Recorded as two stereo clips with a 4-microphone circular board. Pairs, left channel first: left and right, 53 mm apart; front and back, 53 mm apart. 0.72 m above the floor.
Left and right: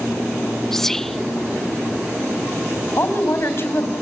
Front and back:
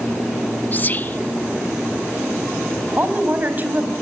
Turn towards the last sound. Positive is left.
turn(degrees=125)